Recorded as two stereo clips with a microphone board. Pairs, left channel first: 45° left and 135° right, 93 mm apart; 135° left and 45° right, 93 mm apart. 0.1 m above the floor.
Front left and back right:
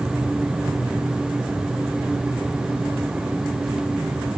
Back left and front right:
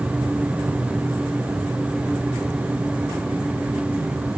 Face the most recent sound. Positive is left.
No sound to turn to.